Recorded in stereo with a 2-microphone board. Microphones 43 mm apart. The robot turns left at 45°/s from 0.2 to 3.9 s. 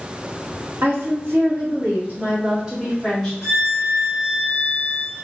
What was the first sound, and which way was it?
A woman speaking, 80° right.